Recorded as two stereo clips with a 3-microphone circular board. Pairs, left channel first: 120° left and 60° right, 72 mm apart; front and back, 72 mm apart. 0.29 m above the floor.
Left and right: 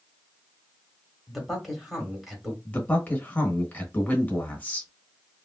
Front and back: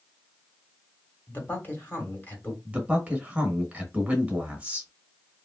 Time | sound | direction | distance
1.3 | a man speaking | 30° left | 1.5 m
2.6 | a man speaking | 140° left | 1.2 m